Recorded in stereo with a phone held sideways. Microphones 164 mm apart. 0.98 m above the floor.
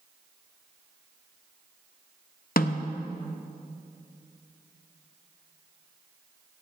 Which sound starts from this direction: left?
A snare drum, at 2.6 s.